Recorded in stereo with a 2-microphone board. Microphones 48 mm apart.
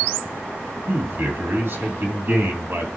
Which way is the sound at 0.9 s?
55° right (ahead or behind).